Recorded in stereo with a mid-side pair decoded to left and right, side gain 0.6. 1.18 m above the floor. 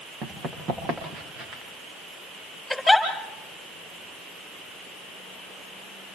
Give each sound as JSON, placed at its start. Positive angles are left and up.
{"t": 0.2, "sound": "running footsteps", "azimuth_deg": -55, "distance_m": 8.0}
{"t": 2.7, "sound": "a giggle", "azimuth_deg": 5, "distance_m": 8.0}